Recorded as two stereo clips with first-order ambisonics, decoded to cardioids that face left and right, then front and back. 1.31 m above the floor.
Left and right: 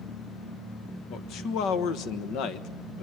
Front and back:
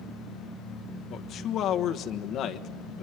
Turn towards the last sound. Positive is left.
turn(degrees=55)